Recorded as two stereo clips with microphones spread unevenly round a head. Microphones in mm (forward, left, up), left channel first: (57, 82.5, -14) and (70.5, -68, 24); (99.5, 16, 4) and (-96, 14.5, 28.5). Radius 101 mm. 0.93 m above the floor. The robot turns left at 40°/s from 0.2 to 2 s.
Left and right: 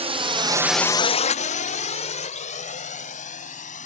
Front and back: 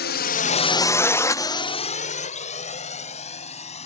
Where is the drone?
30° right; by 3.9 s 60° left.